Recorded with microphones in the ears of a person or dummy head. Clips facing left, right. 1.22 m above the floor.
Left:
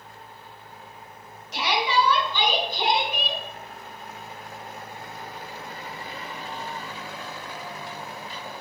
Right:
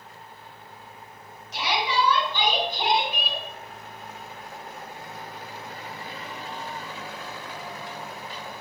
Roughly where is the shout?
Left.